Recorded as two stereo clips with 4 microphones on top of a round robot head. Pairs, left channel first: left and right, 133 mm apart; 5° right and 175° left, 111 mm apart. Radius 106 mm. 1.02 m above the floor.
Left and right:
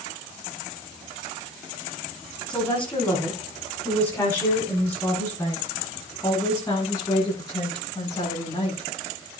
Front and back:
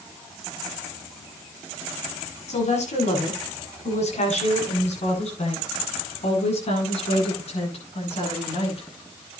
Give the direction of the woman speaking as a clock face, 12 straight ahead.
12 o'clock.